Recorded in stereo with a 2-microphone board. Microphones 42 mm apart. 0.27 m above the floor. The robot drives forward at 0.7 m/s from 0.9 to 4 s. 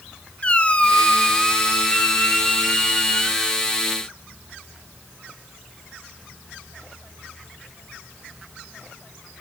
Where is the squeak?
25° left (ahead or behind), 1.0 m; by 3.6 s 10° left (ahead or behind), 3 m.